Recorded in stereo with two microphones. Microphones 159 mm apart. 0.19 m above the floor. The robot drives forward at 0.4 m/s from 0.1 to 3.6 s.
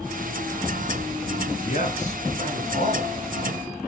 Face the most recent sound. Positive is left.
turn(degrees=45)  # may be behind; listen again after turning